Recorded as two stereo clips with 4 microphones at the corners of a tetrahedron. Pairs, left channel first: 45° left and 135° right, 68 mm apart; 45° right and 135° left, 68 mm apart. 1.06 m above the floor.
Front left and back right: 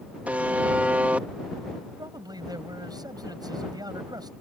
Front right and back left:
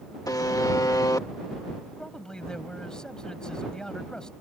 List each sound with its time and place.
0.3 s a buzzer: 70° right
2.0 s a man speaking: 125° right